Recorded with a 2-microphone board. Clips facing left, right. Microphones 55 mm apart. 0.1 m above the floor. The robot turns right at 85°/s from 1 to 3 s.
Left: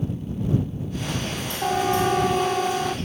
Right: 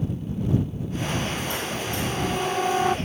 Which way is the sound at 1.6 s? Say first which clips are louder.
Left 7 dB; 80° left.